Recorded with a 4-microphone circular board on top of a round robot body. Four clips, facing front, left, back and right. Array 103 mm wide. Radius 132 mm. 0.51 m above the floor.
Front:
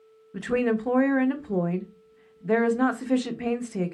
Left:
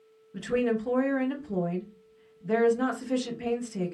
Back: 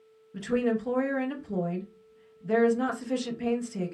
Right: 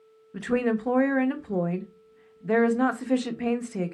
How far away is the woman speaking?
About 0.8 m.